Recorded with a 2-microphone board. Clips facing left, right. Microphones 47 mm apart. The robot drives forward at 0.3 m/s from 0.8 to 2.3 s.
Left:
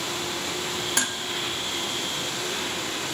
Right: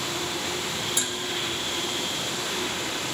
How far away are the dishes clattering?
About 1.4 m.